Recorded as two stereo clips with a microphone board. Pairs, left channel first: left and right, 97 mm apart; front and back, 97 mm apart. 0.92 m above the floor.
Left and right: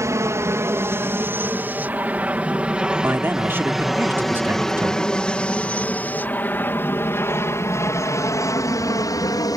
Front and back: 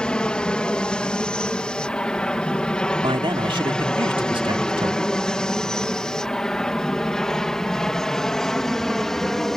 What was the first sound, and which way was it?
An aircraft, 70° right.